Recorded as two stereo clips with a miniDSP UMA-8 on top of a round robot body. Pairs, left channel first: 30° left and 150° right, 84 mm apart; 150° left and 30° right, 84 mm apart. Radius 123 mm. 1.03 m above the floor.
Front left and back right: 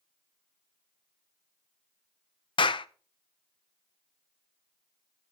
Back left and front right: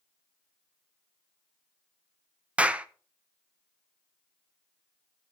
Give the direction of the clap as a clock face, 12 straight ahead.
10 o'clock.